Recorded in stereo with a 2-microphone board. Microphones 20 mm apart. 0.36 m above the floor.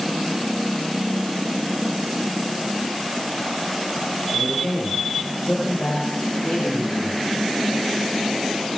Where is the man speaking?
80° left, 8 m; by 7.2 s 75° left (ahead or behind), 11.5 m.